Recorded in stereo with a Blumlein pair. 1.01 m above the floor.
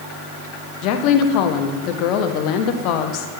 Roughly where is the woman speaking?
Ahead left.